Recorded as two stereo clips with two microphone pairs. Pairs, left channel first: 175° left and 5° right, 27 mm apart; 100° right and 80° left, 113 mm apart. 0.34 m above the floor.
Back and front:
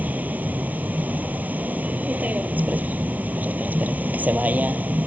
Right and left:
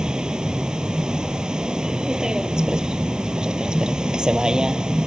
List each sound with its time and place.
0.0 s a vehicle: 5° right